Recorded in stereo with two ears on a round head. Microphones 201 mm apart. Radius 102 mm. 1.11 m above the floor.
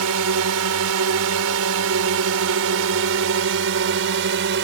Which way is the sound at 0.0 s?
80° right.